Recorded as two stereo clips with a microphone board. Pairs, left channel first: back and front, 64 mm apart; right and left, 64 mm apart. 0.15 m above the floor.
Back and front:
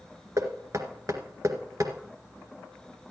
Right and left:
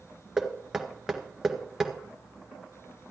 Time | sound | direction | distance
0.4 | knocking | 10° left | 1.6 m